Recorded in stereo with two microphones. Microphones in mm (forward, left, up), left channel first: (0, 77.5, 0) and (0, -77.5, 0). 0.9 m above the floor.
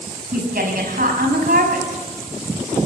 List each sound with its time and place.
0.3 s a woman speaking: 70° right (ahead or behind), 5.5 m